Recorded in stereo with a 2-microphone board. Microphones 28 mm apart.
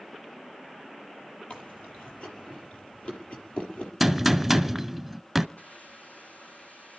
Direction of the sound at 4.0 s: Centre (ahead or behind).